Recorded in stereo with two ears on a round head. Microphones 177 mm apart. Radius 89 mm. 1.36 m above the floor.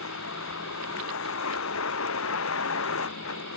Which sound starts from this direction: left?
A vehicle, at 0.0 s.